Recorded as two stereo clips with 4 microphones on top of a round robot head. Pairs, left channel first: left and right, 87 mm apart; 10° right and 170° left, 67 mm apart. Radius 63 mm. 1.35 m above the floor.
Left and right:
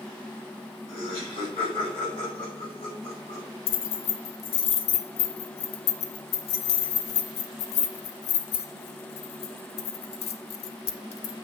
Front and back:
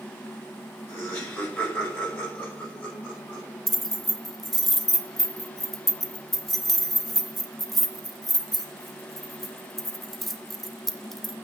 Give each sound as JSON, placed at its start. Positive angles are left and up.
{"t": 0.9, "sound": "laughter", "azimuth_deg": 55, "distance_m": 6.0}
{"t": 3.7, "sound": "keys jangling", "azimuth_deg": 75, "distance_m": 1.1}